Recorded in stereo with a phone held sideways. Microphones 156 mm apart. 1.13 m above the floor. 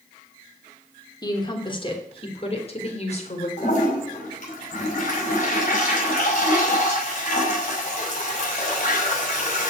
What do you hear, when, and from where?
1.2 s a woman speaking: 25° left (ahead or behind), 3.5 m; by 3.5 s 45° left (ahead or behind), 4.5 m
3.6 s a toilet flushing: 50° left (ahead or behind), 6.5 m